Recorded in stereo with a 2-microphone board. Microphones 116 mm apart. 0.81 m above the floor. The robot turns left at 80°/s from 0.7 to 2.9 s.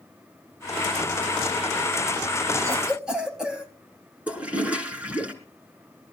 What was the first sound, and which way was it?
A cough, 30° right (ahead or behind).